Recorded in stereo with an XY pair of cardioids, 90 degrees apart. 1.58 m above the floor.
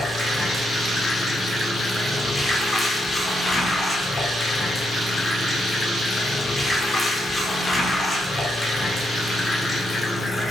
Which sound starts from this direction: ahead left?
Running water, at 0.0 s.